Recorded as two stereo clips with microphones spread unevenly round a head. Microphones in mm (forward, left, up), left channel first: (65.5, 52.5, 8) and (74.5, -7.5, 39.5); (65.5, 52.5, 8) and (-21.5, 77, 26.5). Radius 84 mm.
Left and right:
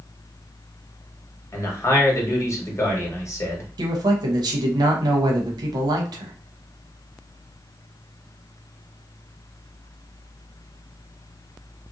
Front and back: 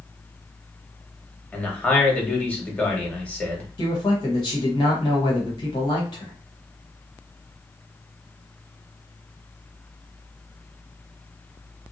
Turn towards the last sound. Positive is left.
turn(degrees=-70)